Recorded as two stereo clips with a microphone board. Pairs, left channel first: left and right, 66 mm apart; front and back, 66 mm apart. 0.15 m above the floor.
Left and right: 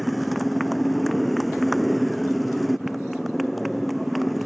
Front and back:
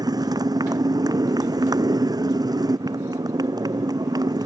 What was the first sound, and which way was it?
A motorcycle, straight behind.